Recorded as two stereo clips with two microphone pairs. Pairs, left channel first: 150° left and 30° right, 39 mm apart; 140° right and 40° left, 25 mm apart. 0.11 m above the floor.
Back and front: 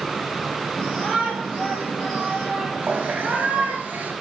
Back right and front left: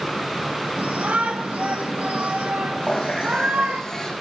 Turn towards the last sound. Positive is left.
turn(degrees=-70)